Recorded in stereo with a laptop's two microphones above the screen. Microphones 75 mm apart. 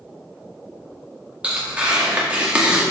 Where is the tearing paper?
15° right (ahead or behind), 1.9 m.